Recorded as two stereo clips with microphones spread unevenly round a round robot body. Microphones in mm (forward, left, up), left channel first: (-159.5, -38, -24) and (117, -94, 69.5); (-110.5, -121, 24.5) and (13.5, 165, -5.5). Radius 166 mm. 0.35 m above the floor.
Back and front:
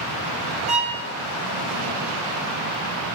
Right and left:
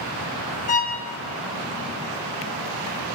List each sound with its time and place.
0.7 s a violin: 90° right, 1.5 m